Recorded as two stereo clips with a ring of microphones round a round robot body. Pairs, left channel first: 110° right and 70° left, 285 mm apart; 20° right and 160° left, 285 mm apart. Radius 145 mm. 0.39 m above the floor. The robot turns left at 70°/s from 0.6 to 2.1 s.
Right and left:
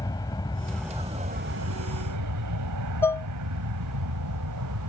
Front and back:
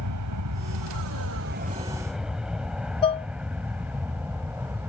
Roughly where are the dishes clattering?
Ahead right.